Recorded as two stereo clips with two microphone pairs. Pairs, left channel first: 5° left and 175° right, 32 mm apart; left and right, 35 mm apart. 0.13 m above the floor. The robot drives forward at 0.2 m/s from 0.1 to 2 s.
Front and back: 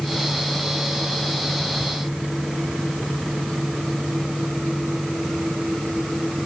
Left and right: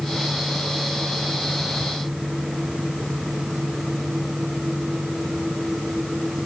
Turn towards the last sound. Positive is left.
No sound to turn to.